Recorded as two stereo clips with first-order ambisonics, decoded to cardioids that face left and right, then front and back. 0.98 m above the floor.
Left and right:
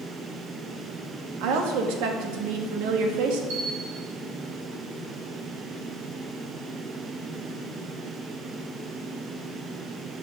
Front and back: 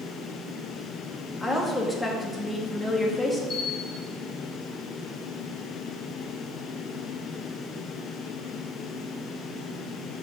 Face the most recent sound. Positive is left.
turn(degrees=-65)